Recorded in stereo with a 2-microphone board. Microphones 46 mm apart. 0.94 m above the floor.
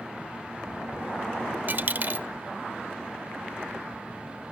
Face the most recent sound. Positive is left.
turn(degrees=-45)  # may be behind; listen again after turning